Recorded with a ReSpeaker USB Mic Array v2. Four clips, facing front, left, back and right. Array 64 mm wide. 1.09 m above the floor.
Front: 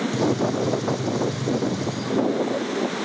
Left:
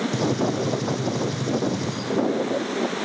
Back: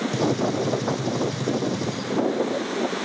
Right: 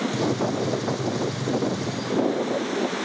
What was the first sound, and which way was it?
A gunshot, 145° left.